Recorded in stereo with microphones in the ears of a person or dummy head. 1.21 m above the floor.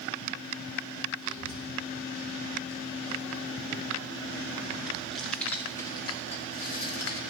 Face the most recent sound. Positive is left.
turn(degrees=70)  # may be behind; listen again after turning